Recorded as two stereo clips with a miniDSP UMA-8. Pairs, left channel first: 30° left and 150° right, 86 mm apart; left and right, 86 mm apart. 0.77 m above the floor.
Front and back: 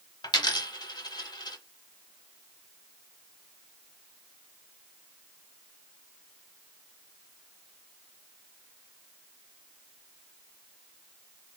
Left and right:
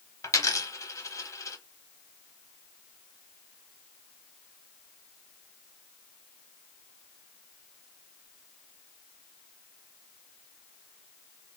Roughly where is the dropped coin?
Ahead left.